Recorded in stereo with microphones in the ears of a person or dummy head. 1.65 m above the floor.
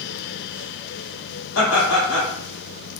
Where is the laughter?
85° left, 1.0 m.